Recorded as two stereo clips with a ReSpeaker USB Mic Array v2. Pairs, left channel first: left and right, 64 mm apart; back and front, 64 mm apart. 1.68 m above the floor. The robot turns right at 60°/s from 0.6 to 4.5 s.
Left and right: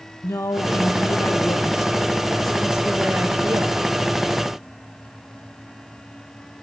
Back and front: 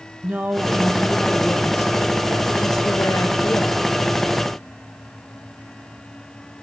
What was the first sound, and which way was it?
A woman speaking, 60° left.